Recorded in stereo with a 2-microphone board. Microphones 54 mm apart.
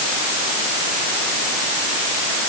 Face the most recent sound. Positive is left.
No sound to turn to.